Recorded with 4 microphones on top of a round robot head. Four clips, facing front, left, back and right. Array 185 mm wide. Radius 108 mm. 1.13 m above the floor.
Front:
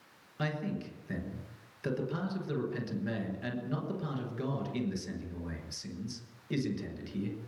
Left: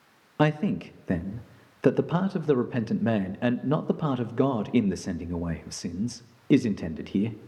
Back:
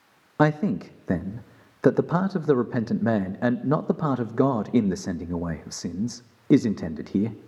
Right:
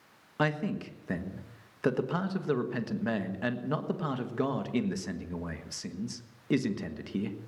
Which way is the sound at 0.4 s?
155° left.